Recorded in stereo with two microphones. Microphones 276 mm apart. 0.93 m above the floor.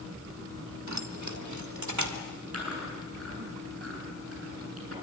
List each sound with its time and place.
0.9 s keys jangling: 70° right (ahead or behind), 1.5 m; by 2.2 s 85° right, 2.5 m
2.5 s chewing: 55° right (ahead or behind), 7.5 m